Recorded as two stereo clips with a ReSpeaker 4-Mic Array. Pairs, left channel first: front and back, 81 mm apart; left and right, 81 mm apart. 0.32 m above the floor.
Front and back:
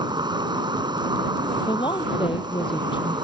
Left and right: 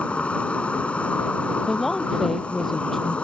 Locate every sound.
0.0 s an insect: 165° left
1.7 s a woman speaking: 5° left